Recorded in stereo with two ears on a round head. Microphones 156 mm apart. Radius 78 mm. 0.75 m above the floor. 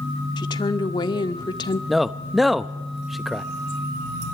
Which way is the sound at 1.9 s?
Centre (ahead or behind).